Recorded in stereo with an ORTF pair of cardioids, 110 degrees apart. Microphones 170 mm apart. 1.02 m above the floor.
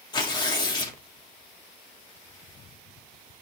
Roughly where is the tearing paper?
Ahead left.